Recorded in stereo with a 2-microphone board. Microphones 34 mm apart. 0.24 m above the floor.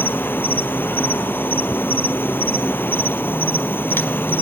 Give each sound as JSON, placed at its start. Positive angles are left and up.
{"t": 0.0, "sound": "an insect", "side_deg": 80, "distance_m": 1.0}